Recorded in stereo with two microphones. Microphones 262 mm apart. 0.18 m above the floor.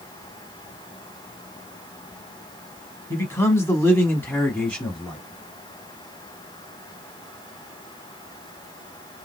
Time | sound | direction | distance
3.1 | a man speaking | 10° left (ahead or behind) | 1.0 m